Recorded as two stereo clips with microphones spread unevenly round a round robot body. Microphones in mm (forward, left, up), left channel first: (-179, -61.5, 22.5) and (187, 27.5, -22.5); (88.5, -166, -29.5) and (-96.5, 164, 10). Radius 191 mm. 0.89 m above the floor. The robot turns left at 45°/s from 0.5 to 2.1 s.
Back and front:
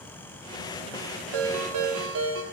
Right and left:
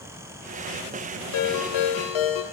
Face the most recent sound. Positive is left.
turn(degrees=-45)